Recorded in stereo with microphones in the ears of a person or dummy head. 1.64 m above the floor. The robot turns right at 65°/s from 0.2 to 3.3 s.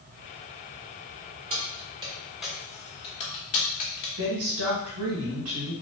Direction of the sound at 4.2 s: 80° right.